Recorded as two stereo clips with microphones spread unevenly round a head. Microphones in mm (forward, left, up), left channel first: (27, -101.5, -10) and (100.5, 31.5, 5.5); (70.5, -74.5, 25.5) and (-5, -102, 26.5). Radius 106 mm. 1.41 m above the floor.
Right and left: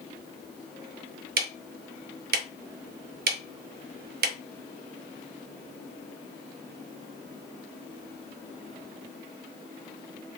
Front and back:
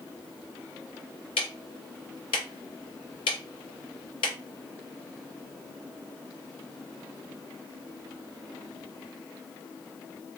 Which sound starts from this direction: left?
Ticking, at 1.4 s.